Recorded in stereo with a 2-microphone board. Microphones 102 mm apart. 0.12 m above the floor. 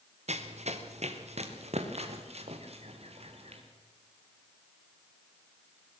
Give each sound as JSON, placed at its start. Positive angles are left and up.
{"t": 0.3, "sound": "running footsteps", "side_deg": -90, "distance_m": 2.0}